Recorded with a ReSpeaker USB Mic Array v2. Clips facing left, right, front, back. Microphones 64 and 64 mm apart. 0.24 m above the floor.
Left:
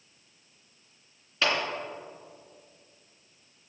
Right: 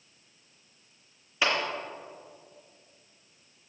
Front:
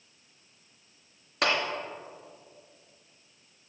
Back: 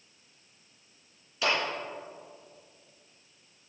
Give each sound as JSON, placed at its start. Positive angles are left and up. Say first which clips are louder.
{"t": 1.4, "sound": "a clap", "louder": "even, front 1 dB", "azimuth_deg": -15, "distance_m": 2.5}